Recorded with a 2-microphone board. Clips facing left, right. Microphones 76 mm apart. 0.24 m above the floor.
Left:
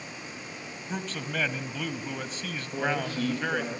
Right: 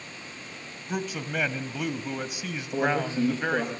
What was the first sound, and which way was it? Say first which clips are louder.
A man speaking: right 3 dB; 10° right (ahead or behind).